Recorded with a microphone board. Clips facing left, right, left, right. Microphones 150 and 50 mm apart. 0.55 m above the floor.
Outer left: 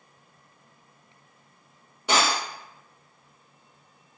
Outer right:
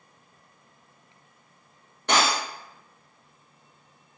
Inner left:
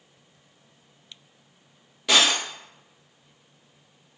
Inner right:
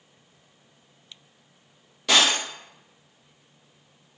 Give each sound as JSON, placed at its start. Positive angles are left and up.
{"t": 2.1, "sound": "breaking glass", "side_deg": 10, "distance_m": 1.1}